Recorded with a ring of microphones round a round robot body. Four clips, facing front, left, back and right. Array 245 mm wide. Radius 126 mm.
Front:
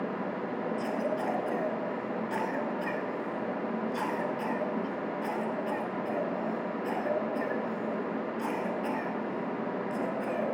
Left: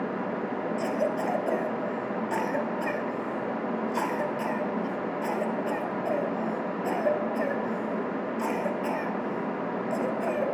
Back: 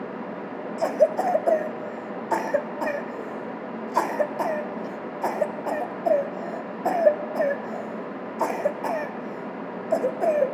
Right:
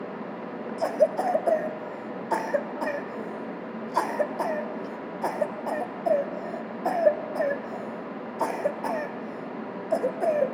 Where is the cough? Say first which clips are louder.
Right 7 dB, back 14 dB; 155° right, 2.5 m.